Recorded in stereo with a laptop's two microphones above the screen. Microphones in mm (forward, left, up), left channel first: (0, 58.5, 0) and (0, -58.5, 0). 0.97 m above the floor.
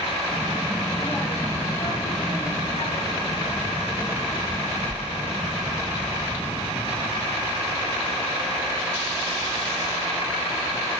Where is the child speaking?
Centre (ahead or behind), 1.2 m; by 6.5 s 55° left (ahead or behind), 4 m.